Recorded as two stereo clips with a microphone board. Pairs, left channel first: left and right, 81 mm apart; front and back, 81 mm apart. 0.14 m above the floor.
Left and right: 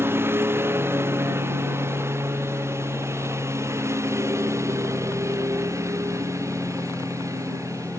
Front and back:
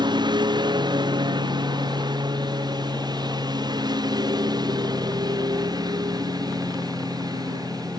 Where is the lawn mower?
150° right; by 8.0 s 140° right.